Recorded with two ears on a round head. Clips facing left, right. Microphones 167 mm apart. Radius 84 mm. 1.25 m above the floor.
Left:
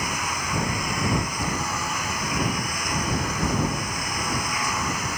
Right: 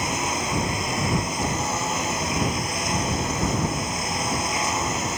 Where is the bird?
I don't hear a bird.